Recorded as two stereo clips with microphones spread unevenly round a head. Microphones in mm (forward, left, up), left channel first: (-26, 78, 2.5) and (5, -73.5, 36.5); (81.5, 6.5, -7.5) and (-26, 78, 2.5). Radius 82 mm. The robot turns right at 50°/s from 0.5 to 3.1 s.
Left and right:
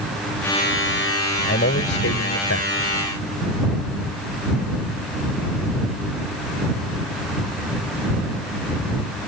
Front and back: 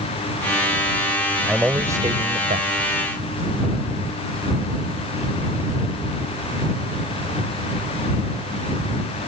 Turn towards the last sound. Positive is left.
turn(degrees=140)